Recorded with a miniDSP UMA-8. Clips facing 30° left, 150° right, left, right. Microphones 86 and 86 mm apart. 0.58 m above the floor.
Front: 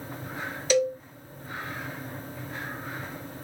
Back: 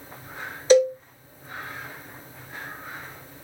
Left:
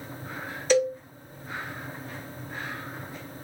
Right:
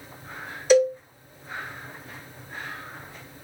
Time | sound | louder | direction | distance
0.7 | a cowbell | back 7 dB, right 5 dB | 155° right | 1.2 m